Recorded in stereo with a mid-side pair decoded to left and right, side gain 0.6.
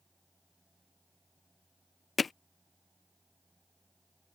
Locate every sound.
0.0 s a fan: 10° right
2.2 s hammering: 25° left